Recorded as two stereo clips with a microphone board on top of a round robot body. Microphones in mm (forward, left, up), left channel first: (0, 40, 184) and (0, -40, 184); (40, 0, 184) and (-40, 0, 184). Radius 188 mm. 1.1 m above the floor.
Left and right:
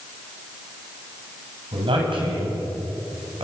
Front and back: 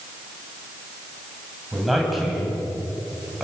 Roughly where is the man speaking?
Right.